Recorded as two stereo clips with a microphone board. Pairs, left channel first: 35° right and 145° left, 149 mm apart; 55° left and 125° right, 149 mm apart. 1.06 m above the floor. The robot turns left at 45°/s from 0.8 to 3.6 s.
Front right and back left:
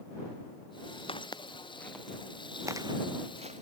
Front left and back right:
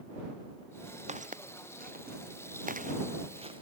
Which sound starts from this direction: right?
Footsteps, at 1.1 s.